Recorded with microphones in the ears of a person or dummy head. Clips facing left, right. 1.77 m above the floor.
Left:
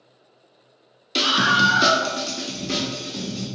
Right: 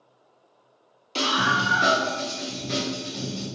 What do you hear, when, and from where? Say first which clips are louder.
1.1 s a scream: left 3 dB; 20° left (ahead or behind), 0.6 m; by 3.5 s 50° left (ahead or behind), 1.4 m